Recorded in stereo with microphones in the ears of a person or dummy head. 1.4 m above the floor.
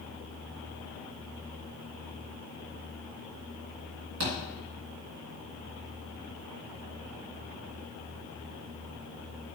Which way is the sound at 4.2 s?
60° right (ahead or behind).